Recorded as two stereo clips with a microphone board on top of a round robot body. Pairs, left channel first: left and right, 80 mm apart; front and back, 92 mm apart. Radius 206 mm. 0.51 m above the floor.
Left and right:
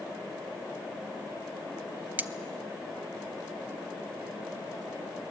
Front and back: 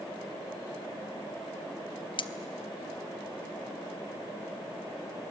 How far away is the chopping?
No chopping in this recording.